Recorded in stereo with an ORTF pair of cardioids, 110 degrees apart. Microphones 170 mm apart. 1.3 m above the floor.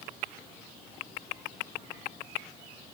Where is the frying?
No frying in this recording.